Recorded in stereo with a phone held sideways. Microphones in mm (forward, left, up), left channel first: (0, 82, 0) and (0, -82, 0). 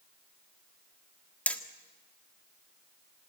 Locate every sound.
1.5 s hammering: 10° left (ahead or behind), 1.6 m